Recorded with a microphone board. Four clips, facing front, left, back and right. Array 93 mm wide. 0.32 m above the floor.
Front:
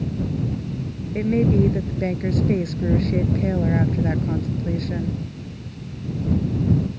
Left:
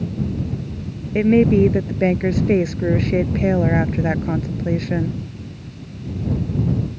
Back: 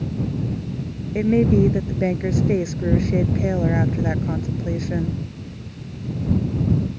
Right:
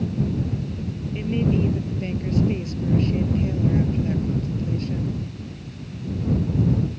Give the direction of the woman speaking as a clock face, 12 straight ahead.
8 o'clock.